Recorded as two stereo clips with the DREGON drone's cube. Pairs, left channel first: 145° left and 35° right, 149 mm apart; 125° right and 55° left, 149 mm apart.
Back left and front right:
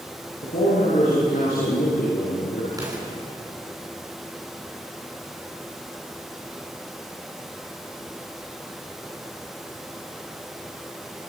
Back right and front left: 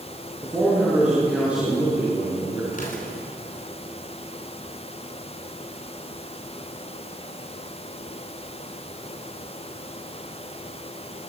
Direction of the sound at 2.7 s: 100° right.